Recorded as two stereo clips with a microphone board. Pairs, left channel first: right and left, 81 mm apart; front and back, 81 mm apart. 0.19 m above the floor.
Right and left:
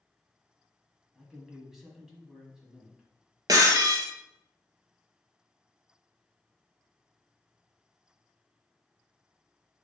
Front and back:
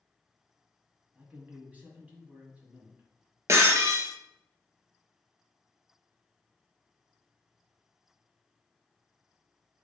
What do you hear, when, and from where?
1.1 s a man speaking: 165° left, 1.1 m
3.5 s breaking glass: 130° left, 1.6 m